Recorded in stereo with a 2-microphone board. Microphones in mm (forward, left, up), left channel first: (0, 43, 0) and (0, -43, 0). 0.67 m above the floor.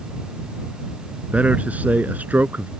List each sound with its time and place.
1.3 s a man speaking: 15° right (ahead or behind); by 2.7 s 20° right (ahead or behind)